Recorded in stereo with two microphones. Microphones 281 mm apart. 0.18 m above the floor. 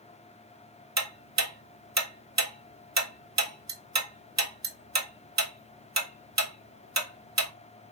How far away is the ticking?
About 0.7 m.